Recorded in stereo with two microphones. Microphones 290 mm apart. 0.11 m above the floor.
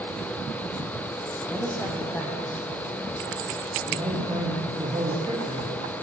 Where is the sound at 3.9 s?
15° right (ahead or behind), 6 m.